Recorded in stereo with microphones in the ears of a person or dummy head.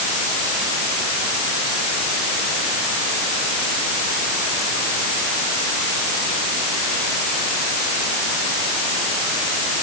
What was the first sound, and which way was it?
Only background noise.